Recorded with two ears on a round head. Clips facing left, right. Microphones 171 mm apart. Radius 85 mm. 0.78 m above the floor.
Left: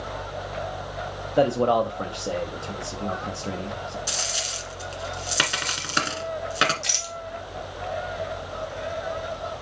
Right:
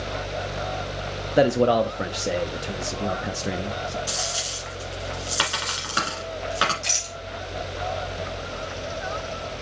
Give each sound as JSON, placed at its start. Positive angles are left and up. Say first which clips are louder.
{"t": 1.4, "sound": "a man speaking", "louder": "right 2 dB", "side_deg": -20, "distance_m": 0.6}
{"t": 4.1, "sound": "a dropped coin", "louder": "right 2 dB", "side_deg": 25, "distance_m": 1.7}
{"t": 6.8, "sound": "a rattle", "louder": "even", "side_deg": 15, "distance_m": 1.8}